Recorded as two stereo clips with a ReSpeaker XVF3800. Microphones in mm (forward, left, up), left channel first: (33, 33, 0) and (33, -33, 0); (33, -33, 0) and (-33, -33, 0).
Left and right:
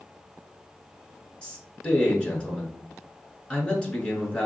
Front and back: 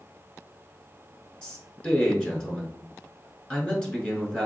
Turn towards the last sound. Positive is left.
turn(degrees=50)